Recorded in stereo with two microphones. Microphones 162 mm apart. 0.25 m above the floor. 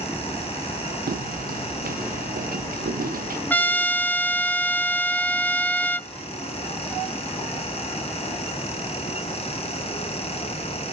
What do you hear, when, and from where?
1.1 s footsteps: 70° right (ahead or behind), 1.0 m
3.5 s a trumpet: 10° left (ahead or behind), 0.5 m